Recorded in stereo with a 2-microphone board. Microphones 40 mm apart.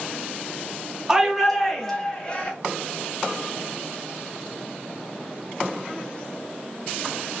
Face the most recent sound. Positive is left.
turn(degrees=25)  # may be behind; listen again after turning